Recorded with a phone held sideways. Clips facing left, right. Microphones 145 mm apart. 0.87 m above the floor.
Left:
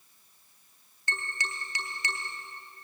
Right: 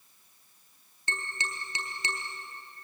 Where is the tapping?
25° right (ahead or behind), 3.5 m.